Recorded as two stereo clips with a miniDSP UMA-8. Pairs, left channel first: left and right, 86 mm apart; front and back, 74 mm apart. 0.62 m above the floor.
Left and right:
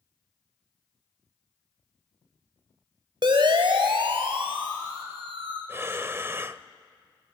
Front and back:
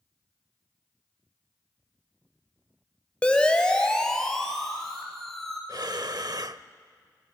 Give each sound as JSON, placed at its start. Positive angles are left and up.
{"t": 3.2, "sound": "a siren", "azimuth_deg": -75, "distance_m": 3.0}
{"t": 5.7, "sound": "breathing", "azimuth_deg": -150, "distance_m": 0.6}